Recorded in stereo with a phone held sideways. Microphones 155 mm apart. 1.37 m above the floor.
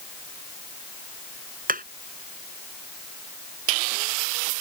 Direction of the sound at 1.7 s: 65° right (ahead or behind).